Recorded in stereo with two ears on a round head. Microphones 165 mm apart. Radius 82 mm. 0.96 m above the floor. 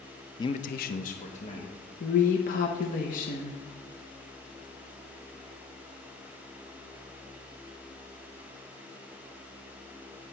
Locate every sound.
0.4 s a man speaking: 20° left (ahead or behind), 0.6 m; by 1.7 s 35° left (ahead or behind), 1.8 m
2.0 s a woman speaking: 50° left (ahead or behind), 0.8 m